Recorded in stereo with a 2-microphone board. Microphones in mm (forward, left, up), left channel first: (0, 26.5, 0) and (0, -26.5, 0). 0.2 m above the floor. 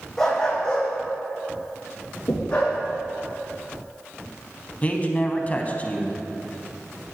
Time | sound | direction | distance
0.2 | a dog barking | 10° left (ahead or behind) | 3 m
2.3 | knocking | 65° left (ahead or behind) | 2.5 m
4.8 | a man speaking | 30° left (ahead or behind) | 1.1 m